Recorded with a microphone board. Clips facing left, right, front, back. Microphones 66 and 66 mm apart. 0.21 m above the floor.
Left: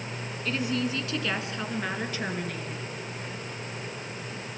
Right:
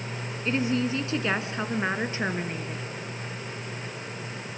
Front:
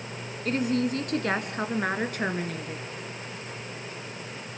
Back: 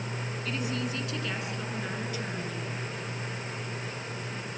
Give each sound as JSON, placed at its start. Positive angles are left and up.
{"t": 0.5, "sound": "a woman speaking", "azimuth_deg": -30, "distance_m": 1.9}